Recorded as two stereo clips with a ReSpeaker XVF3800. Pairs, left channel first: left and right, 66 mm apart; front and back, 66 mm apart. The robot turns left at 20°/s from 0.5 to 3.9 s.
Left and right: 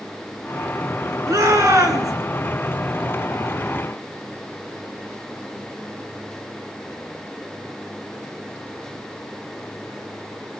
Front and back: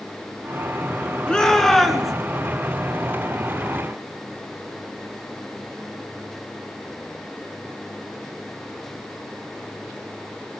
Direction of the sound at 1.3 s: 75° right.